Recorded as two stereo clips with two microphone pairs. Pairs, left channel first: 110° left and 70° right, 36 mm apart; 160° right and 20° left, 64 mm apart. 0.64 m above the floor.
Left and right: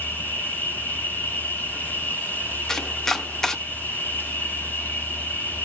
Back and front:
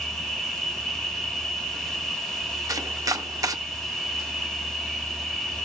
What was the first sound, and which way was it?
An insect, 120° left.